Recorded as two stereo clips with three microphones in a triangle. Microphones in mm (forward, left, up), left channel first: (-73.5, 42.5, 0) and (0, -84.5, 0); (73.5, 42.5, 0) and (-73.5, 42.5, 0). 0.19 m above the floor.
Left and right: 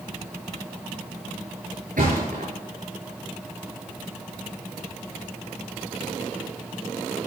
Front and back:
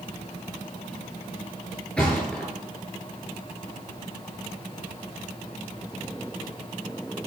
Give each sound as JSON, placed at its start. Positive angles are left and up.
{"t": 2.0, "sound": "a thud", "azimuth_deg": -80, "distance_m": 7.5}